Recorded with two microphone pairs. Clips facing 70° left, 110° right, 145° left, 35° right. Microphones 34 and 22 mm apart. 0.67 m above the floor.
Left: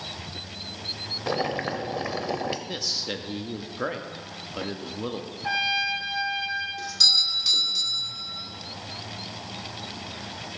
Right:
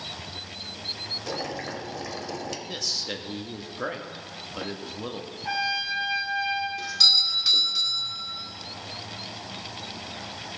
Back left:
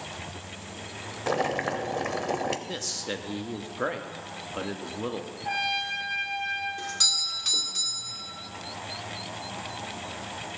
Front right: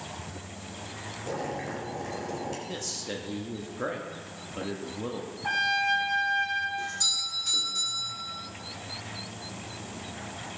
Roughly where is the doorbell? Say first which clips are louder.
Right 1 dB, back left 3 dB; behind.